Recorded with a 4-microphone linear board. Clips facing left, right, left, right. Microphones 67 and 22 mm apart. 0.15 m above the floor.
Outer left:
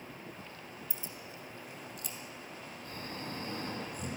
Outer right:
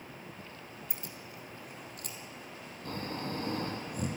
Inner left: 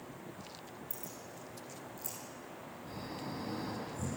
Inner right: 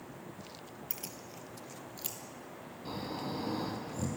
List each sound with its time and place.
0.9 s keys jangling: 65° right (ahead or behind), 2.5 m; by 2.2 s 50° right (ahead or behind), 4 m
2.9 s snoring: 60° right (ahead or behind), 4.5 m